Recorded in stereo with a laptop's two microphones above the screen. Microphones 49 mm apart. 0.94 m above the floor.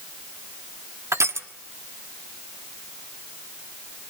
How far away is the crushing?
About 1.3 m.